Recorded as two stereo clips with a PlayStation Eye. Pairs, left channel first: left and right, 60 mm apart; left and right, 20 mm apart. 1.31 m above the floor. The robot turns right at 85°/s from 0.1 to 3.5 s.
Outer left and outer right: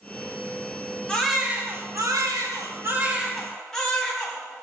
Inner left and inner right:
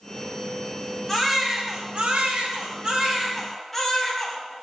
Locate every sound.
1.1 s a baby crying: 160° left, 5.5 m; by 4.4 s 5° left, 5.5 m